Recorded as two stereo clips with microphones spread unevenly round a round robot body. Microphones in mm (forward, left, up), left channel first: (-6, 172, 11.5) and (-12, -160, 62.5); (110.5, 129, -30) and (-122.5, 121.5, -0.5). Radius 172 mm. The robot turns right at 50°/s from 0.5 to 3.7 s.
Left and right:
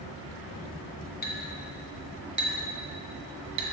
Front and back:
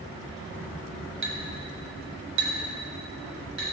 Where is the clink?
150° left, 2 m; by 3.6 s 90° right, 2 m.